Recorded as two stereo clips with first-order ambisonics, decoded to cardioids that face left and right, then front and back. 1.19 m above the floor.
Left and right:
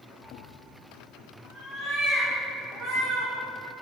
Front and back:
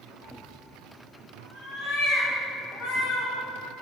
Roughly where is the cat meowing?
Ahead.